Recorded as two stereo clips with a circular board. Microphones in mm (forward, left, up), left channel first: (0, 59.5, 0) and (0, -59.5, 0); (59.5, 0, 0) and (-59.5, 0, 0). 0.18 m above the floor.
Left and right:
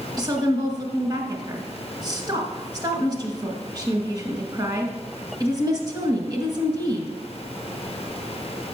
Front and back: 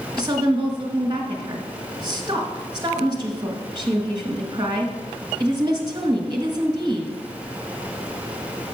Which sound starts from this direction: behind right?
A woman speaking, at 0.2 s.